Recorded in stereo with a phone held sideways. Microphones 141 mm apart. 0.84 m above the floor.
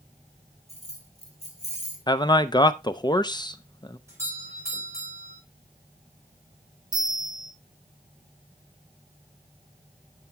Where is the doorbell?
20° right (ahead or behind), 5 m.